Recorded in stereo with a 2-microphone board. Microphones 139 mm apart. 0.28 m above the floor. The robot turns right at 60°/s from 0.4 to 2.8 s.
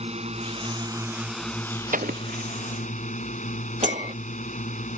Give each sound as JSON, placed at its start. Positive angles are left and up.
{"t": 0.0, "sound": "a drone", "azimuth_deg": -60}
{"t": 1.9, "sound": "an explosion", "side_deg": -75}
{"t": 3.8, "sound": "a clink", "side_deg": 60}